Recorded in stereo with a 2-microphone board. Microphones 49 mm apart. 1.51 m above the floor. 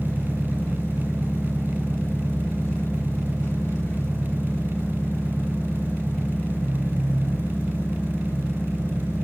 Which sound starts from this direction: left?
An engine running, at 0.0 s.